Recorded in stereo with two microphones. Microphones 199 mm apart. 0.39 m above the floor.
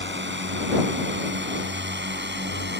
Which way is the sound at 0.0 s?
70° right (ahead or behind).